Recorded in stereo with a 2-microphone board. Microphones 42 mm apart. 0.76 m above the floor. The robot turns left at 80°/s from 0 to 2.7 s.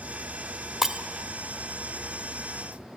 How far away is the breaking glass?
About 0.8 m.